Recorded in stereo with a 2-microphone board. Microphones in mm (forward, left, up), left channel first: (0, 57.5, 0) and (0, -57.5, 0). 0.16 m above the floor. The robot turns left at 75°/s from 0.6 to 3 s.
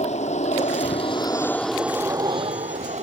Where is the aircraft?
85° left; by 3.0 s 95° right.